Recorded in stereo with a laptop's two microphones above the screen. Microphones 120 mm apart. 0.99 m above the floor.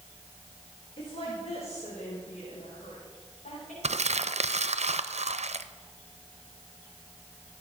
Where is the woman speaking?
50° left (ahead or behind), 4 m; by 3.7 s 85° left, 7 m.